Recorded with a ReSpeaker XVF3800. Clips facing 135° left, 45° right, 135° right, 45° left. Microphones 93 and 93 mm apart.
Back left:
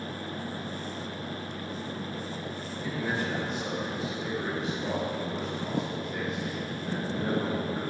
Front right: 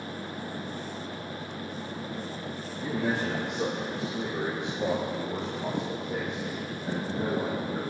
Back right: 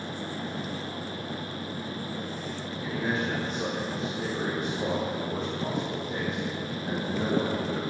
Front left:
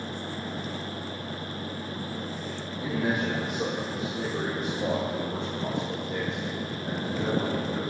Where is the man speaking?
25° right, 4 m; by 7.8 s 70° right, 6.5 m.